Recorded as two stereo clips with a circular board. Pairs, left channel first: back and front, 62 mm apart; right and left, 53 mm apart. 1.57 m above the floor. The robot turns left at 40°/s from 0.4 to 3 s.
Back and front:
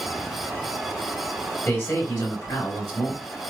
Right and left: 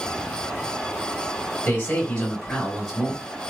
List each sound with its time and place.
1.6 s a man speaking: 145° right, 1.6 m; by 3.2 s 165° left, 1.6 m